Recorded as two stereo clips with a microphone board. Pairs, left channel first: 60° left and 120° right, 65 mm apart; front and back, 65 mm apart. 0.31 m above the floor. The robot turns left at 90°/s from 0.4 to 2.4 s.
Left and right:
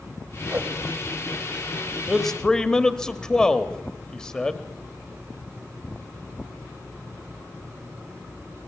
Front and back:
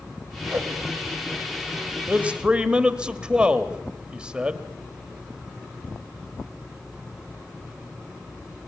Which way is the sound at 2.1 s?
155° left.